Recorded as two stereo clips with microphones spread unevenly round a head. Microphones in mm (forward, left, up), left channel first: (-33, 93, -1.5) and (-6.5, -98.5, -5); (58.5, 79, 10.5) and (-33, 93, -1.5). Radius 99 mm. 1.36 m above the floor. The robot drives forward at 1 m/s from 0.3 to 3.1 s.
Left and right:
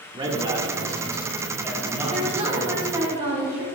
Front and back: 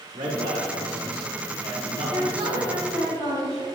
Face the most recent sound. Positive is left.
turn(degrees=-155)